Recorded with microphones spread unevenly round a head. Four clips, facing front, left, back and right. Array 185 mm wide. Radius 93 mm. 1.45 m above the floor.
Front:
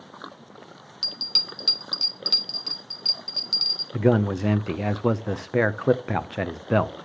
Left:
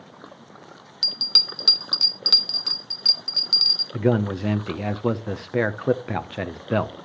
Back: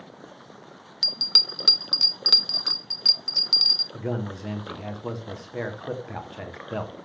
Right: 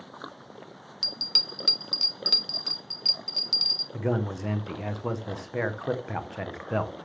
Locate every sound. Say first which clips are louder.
1.0 s a bell: left 3 dB, back 3 dB; 160° left, 0.8 m
3.9 s a man speaking: left 7 dB, front 10 dB; 40° left, 0.7 m